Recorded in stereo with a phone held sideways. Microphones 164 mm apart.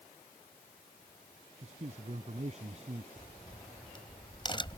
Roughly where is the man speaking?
Right.